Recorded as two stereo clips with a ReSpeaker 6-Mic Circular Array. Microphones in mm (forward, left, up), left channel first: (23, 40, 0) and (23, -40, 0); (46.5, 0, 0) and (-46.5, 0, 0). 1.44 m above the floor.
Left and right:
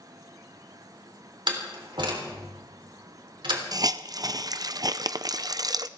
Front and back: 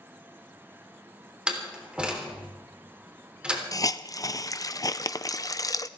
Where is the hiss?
50° right, 0.5 m.